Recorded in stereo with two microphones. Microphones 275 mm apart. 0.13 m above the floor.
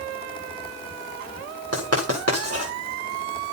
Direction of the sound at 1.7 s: 60° right (ahead or behind).